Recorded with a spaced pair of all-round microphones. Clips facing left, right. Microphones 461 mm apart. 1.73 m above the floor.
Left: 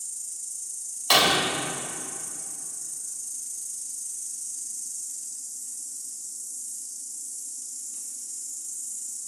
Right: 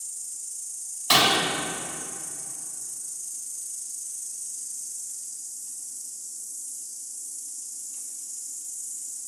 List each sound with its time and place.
0.0 s an insect: 65° left (ahead or behind), 2.5 m
1.1 s breaking glass: 35° right (ahead or behind), 3 m